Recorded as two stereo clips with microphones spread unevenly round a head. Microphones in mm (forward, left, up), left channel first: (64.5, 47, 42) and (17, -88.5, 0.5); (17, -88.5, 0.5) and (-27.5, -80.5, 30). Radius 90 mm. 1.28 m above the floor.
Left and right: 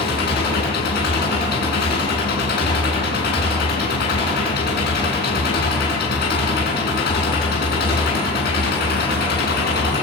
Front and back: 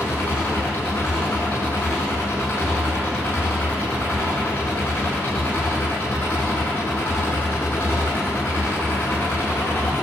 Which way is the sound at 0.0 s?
75° left.